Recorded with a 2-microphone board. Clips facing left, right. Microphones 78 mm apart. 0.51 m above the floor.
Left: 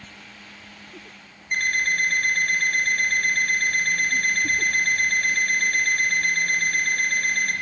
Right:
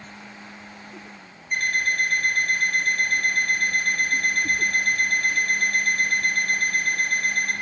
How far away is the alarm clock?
About 0.8 m.